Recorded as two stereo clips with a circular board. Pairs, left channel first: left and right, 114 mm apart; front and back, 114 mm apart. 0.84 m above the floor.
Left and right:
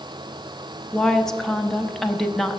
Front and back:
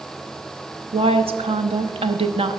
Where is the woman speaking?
175° left, 0.8 m.